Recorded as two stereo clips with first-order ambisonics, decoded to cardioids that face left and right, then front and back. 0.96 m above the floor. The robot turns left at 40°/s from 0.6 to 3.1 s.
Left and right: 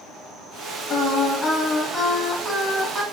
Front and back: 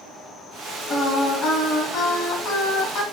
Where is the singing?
55° left, 1.0 m; by 3.0 s 30° right, 1.0 m.